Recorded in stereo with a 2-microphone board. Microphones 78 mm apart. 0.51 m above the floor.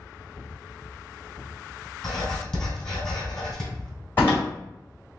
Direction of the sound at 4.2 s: 30° left (ahead or behind).